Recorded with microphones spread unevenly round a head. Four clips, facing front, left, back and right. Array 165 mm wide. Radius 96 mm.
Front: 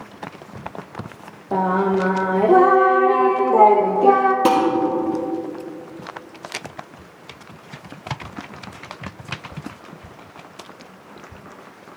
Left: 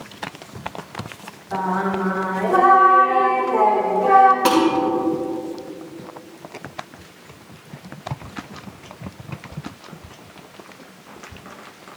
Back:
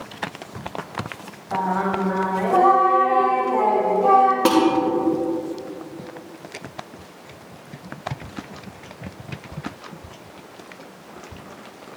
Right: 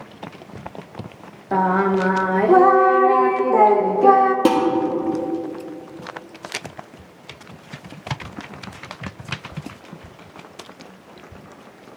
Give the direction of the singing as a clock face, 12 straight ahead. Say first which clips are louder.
Right 4 dB, front 4 dB; 1 o'clock.